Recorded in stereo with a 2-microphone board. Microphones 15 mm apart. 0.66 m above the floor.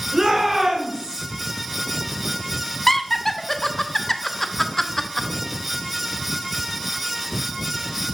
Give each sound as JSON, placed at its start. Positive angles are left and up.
{"t": 0.1, "sound": "a shout", "side_deg": -60, "distance_m": 3.0}
{"t": 2.9, "sound": "laughter", "side_deg": 25, "distance_m": 0.6}